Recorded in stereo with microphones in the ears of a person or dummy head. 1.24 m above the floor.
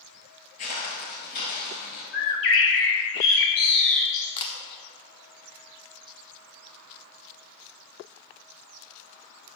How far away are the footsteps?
About 1.7 m.